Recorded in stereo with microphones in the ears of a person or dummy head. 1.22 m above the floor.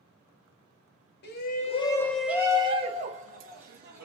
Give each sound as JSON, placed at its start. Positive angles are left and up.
{"t": 1.2, "sound": "a shout", "side_deg": 50, "distance_m": 0.6}